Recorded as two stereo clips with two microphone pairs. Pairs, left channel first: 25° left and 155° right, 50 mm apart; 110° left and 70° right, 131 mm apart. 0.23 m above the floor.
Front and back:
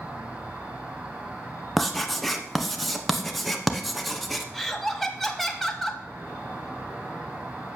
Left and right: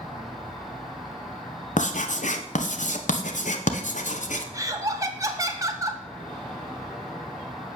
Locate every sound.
0.0 s an insect: 170° right, 6 m
1.8 s writing: 110° left, 1.0 m
4.5 s laughter: 65° right, 1.0 m